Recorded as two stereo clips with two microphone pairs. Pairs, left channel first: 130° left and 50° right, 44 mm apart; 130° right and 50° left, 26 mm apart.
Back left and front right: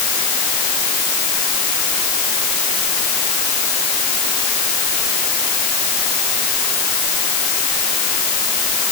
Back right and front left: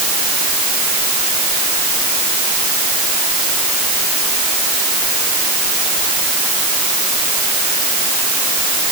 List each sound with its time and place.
Only background noise.